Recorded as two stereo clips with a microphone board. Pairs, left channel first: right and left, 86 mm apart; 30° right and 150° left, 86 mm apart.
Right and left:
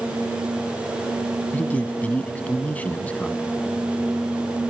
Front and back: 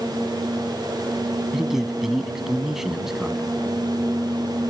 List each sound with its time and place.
1.5 s a man speaking: 130° right, 1.0 m